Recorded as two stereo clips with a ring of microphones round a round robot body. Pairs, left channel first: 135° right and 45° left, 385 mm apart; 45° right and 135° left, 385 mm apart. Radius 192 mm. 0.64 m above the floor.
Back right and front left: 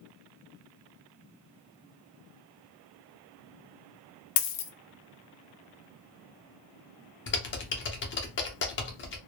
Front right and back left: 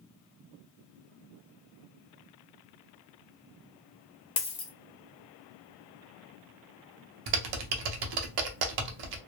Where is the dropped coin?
120° right, 0.5 m.